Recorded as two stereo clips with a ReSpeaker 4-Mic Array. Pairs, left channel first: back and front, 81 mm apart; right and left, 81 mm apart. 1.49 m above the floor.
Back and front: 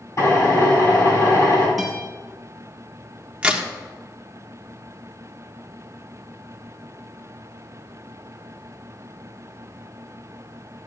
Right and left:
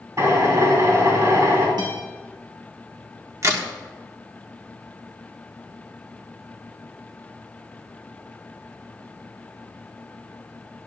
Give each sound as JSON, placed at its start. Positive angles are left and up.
{"t": 0.2, "sound": "a drill", "azimuth_deg": 135, "distance_m": 5.0}
{"t": 1.8, "sound": "a guitar", "azimuth_deg": 90, "distance_m": 6.0}
{"t": 3.4, "sound": "a crack", "azimuth_deg": 70, "distance_m": 1.4}